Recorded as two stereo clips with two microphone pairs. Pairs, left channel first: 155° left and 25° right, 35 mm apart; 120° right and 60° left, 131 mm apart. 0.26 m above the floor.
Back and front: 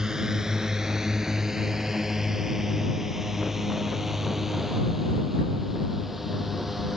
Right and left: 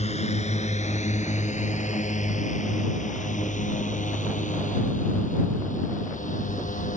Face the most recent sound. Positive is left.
turn(degrees=-110)